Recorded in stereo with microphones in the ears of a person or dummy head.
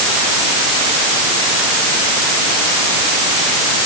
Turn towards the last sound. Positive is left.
No sound to turn to.